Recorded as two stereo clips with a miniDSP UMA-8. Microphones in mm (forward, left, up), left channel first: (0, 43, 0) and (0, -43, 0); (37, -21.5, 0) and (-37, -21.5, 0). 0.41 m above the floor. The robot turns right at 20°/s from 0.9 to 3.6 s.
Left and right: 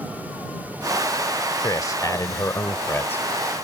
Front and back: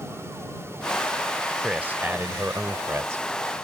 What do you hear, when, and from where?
1.6 s a man speaking: 115° left; by 3.2 s 150° left